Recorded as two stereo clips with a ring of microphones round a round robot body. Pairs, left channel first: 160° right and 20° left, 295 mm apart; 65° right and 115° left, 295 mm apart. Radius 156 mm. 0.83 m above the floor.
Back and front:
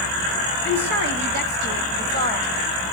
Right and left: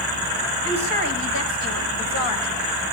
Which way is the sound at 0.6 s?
30° right.